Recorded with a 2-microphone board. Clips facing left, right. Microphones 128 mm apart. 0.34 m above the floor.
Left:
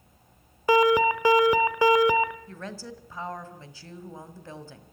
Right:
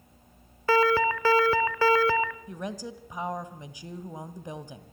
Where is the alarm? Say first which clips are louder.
Left 3 dB; 15° left (ahead or behind), 1.0 m.